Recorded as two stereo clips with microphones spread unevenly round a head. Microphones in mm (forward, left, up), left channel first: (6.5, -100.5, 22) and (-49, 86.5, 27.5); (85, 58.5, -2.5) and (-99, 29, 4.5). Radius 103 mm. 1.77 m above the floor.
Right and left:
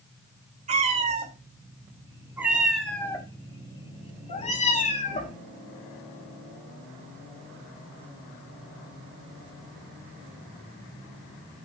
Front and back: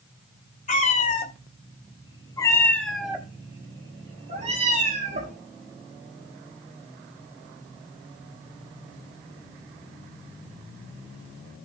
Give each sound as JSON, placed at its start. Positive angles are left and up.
{"t": 0.7, "sound": "a cat meowing", "azimuth_deg": 55, "distance_m": 2.5}